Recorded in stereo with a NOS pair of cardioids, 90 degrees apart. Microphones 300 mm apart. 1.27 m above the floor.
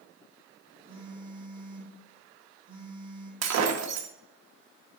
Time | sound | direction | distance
0.9 | a phone buzzing | 15° right | 3 m
3.4 | breaking glass | 60° right | 1.1 m